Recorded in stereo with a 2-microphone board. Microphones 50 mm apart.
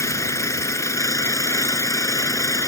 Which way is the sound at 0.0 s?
80° left.